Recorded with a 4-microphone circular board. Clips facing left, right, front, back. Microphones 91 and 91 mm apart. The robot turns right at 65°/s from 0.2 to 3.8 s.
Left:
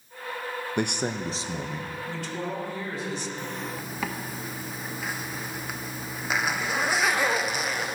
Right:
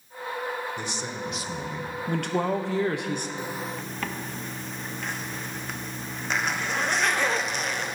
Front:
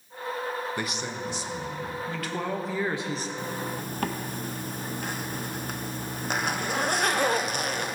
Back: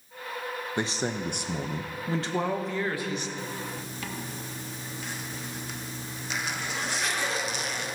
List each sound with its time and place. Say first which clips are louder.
0.8 s a man speaking: left 5 dB, back 3 dB; 110° left, 0.6 m; by 1.9 s 170° right, 0.6 m
2.1 s a man speaking: right 9 dB, back 5 dB; 130° right, 0.9 m; by 3.3 s 50° right, 0.9 m
3.4 s a zipper: right 1 dB, front 3 dB; 20° right, 0.5 m; by 8.0 s 10° left, 0.5 m